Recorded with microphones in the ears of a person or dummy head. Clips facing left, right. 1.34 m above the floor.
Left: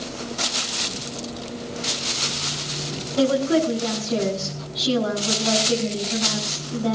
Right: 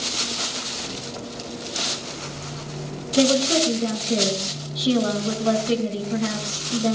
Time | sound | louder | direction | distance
3.2 | a woman speaking | even | 35° right (ahead or behind) | 7.5 m